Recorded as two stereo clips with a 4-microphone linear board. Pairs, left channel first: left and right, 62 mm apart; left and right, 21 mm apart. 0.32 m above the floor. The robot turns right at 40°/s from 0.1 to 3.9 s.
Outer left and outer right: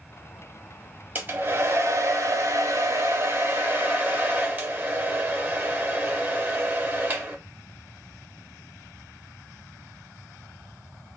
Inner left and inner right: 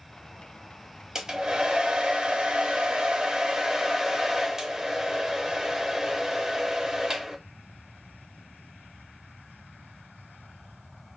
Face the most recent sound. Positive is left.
turn(degrees=-35)